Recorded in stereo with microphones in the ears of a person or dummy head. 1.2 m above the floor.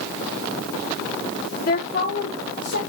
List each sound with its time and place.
1.6 s a woman speaking: 55° left (ahead or behind), 1.0 m; by 2.8 s 60° left (ahead or behind), 1.8 m